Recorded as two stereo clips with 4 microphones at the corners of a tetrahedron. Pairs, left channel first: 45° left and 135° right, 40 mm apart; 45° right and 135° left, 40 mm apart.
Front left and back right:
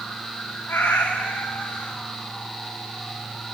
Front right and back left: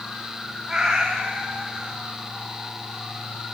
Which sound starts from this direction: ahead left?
A cat meowing, at 0.7 s.